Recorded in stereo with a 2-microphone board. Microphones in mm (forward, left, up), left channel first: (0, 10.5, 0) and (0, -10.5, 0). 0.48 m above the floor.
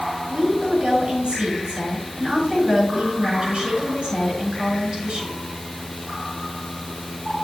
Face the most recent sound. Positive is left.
turn(degrees=-55)  # may be behind; listen again after turning